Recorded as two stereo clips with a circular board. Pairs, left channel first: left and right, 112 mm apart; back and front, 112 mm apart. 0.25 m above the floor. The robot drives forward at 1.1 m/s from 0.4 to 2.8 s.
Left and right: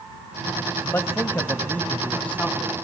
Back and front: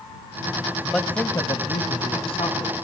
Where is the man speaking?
90° left, 1.0 m; by 2.9 s 170° left, 2.5 m.